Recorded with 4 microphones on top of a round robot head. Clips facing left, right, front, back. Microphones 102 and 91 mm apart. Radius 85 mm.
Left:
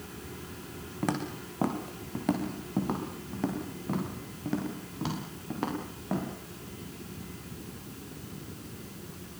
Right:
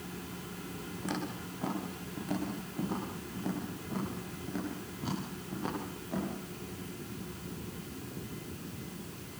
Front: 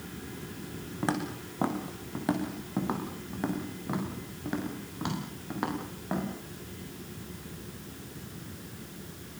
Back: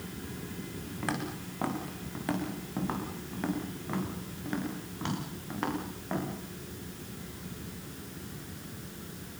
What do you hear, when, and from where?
1.0 s footsteps: 65° left, 6 m; by 6.3 s 75° left, 13.5 m